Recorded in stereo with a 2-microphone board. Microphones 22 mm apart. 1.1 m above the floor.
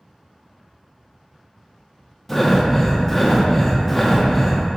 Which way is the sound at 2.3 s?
10° left (ahead or behind).